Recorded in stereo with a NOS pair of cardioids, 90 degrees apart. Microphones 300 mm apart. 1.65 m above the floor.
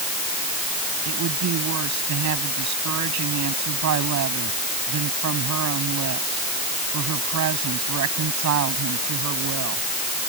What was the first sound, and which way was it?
A woman speaking, 65° right.